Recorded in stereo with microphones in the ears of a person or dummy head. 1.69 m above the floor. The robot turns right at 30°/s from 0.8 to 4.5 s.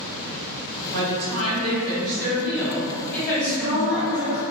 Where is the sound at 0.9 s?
55° right, 1.1 m; by 4.3 s 45° left, 1.1 m.